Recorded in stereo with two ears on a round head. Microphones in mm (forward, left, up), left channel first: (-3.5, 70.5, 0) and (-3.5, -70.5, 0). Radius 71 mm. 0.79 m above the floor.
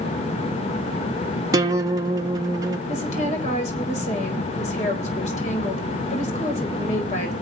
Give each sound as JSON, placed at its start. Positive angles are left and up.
{"t": 1.5, "sound": "a guitar", "side_deg": -25, "distance_m": 1.2}
{"t": 2.9, "sound": "a woman speaking", "side_deg": 45, "distance_m": 4.5}